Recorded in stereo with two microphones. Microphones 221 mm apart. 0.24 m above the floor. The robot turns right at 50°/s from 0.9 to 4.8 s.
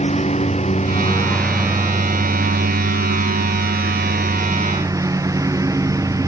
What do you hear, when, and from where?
0.0 s a lawn mower: 150° left; by 6.3 s 15° right